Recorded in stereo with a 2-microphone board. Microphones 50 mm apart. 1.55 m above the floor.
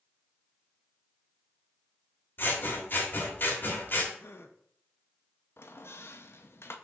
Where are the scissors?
40° left (ahead or behind), 1.3 m.